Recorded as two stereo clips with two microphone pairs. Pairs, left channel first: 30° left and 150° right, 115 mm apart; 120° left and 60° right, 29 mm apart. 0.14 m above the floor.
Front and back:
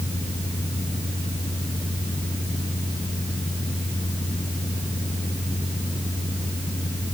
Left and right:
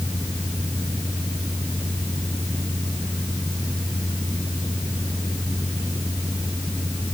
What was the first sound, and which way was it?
Only background noise.